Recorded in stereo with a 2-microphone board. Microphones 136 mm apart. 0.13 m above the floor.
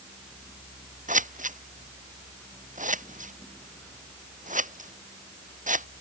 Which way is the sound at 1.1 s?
70° right (ahead or behind).